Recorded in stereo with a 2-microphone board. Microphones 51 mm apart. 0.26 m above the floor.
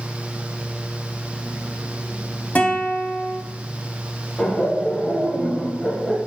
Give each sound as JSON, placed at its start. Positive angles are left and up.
{"t": 2.5, "sound": "a guitar", "side_deg": 30, "distance_m": 1.1}
{"t": 4.4, "sound": "laughter", "side_deg": 15, "distance_m": 1.2}